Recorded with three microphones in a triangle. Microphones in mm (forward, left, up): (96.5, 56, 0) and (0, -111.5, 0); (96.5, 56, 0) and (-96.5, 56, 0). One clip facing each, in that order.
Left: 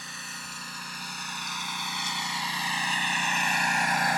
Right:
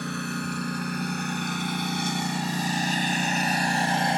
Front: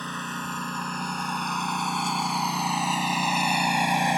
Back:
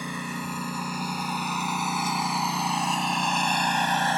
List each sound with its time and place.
0.0 s a lawn mower: 100° right; by 4.2 s 70° right